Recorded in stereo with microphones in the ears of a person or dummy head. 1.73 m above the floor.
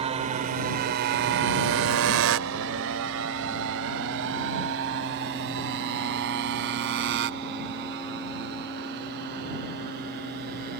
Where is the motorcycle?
35° right (ahead or behind); by 10.8 s 55° right (ahead or behind).